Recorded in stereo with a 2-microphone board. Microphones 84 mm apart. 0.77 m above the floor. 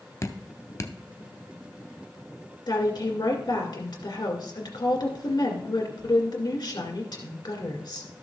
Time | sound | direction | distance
0.2 | dripping | 40° left (ahead or behind) | 0.7 m
2.7 | a woman speaking | 55° left (ahead or behind) | 2 m